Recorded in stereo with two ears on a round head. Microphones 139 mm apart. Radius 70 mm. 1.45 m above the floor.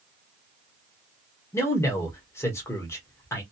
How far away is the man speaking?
About 1.0 m.